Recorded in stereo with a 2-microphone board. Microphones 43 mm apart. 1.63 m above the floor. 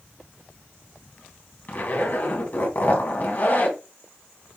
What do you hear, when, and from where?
1.7 s a zipper: 45° left (ahead or behind), 1.4 m